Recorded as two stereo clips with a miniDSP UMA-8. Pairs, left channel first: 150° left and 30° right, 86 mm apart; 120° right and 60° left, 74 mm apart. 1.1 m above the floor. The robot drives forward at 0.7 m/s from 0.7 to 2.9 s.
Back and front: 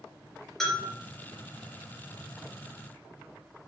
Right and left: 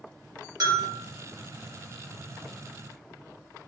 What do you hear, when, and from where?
0.6 s a bell: 65° left, 2.5 m; by 0.9 s 70° left, 2.5 m